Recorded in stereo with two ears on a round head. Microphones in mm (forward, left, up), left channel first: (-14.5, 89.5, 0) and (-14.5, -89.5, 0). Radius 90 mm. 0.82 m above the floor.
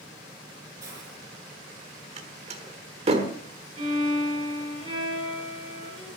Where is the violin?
25° right (ahead or behind), 8 m.